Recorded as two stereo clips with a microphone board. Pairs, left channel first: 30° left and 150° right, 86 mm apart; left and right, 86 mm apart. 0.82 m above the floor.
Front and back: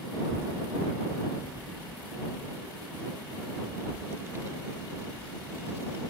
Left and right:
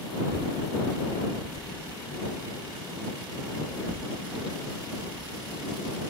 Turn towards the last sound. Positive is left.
turn(degrees=-90)